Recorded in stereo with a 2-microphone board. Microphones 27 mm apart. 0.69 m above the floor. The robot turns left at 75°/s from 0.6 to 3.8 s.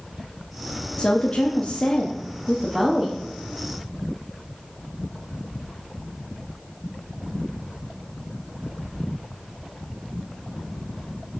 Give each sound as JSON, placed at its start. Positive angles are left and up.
{"t": 1.0, "sound": "a woman speaking", "azimuth_deg": 125, "distance_m": 0.9}